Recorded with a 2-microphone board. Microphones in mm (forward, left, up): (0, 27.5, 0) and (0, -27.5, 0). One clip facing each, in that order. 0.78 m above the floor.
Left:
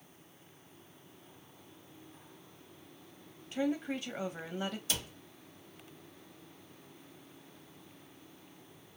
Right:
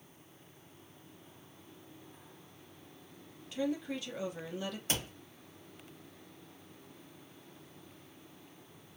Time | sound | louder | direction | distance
3.5 | a woman speaking | left 2 dB | 30° left (ahead or behind) | 0.8 m
4.9 | a cupboard door | right 2 dB | 35° right (ahead or behind) | 0.9 m